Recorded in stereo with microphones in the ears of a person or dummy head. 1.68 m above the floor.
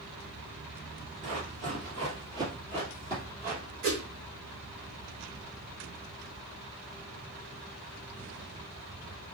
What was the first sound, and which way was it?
Running footsteps, 35° right (ahead or behind).